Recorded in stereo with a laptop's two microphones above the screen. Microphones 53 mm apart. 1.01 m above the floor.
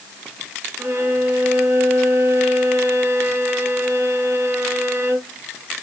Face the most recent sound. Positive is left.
turn(degrees=-45)  # may be behind; listen again after turning